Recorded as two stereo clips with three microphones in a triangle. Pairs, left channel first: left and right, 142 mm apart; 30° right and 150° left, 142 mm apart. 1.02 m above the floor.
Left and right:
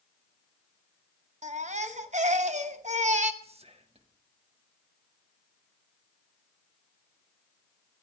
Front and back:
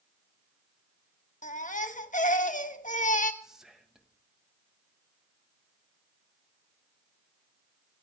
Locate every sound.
1.4 s a baby crying: 55° right, 0.9 m
3.4 s whispering: 125° right, 1.5 m